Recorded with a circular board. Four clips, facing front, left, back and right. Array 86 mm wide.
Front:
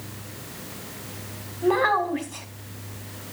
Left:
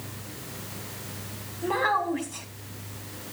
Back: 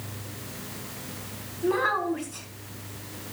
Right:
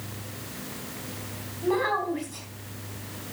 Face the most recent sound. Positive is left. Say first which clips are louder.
# even, front 4 dB
turn(degrees=10)